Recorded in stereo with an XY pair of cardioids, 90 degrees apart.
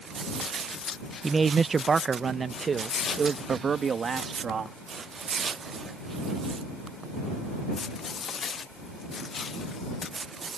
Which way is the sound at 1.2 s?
30° right.